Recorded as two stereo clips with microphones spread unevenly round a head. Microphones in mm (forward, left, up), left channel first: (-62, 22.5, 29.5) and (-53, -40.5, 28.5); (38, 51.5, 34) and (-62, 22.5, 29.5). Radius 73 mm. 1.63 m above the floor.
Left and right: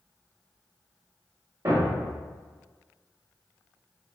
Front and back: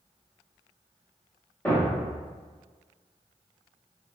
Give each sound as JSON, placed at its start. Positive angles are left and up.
{"t": 1.6, "sound": "a thud", "azimuth_deg": -55, "distance_m": 1.2}